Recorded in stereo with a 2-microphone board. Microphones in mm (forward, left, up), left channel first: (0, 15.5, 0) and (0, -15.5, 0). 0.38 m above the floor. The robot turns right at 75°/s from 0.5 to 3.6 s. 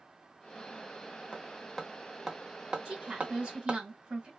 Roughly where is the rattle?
I don't hear a rattle.